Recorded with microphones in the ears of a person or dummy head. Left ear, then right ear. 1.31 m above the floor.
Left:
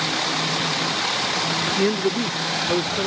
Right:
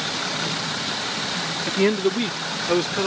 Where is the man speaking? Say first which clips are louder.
Even; 15° right (ahead or behind); by 3.1 s 25° right (ahead or behind).